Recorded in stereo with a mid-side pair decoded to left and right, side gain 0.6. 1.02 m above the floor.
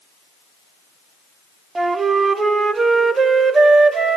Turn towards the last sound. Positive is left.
turn(degrees=-30)